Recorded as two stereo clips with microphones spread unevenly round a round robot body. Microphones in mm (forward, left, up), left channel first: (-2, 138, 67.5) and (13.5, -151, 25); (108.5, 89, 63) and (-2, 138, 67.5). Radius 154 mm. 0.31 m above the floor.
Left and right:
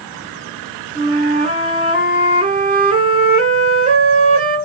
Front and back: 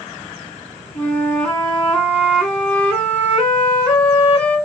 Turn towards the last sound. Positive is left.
turn(degrees=-85)